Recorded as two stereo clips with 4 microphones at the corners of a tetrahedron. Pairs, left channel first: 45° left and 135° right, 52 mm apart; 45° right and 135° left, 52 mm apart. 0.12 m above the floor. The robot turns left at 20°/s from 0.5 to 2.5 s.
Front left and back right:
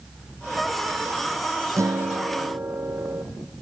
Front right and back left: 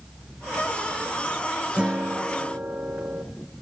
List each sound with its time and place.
1.8 s a guitar: 155° right, 1.4 m; by 3.2 s 170° right, 1.4 m